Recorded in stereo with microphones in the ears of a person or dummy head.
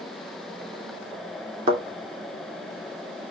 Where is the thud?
40° right (ahead or behind), 2.5 m.